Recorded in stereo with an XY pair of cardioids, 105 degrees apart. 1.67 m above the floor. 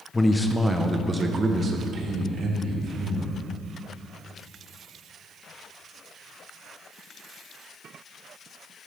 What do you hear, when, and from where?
0.1 s a man speaking: 20° left, 1.3 m; by 3.3 s 60° right, 4 m